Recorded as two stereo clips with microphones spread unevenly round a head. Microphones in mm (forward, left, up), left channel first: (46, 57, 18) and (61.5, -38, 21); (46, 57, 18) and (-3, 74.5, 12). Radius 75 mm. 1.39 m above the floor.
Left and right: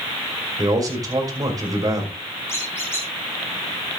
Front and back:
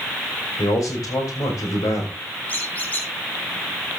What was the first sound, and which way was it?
A man speaking, 30° right.